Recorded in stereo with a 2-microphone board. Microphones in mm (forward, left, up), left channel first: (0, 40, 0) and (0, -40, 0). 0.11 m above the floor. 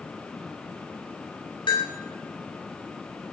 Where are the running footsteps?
No running footsteps in this recording.